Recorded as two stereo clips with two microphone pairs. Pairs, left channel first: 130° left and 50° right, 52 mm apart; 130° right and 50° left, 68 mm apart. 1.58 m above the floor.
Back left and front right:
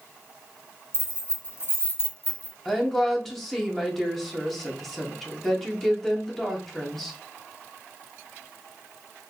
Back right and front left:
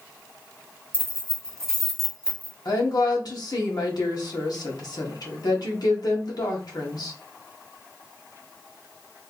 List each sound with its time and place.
0.9 s keys jangling: 165° left, 1.3 m; by 2.5 s 95° left, 0.8 m
2.6 s a woman speaking: 145° right, 1.1 m